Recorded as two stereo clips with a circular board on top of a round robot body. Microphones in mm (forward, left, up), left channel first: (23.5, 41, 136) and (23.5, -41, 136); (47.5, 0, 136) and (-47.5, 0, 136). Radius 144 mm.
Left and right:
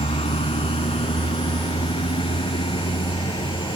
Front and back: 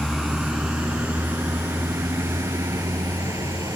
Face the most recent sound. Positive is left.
turn(degrees=120)